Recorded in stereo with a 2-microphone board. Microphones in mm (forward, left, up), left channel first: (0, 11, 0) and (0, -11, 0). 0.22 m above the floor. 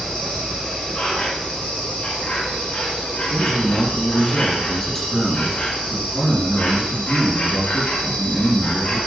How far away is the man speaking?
About 4 m.